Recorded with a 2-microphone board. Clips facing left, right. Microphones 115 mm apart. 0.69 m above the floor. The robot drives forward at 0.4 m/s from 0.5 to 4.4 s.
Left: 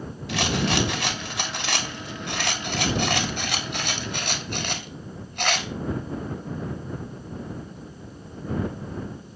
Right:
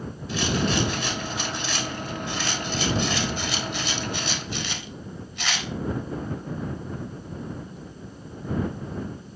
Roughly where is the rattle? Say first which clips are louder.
Even; left.